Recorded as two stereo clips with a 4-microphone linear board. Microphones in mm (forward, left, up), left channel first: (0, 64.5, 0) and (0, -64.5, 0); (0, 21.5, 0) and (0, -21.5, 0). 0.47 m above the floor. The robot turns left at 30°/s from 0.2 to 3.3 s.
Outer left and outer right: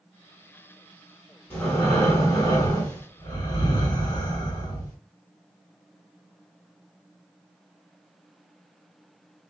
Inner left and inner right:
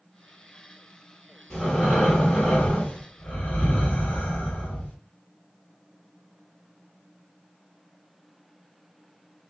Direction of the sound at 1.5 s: 165° left.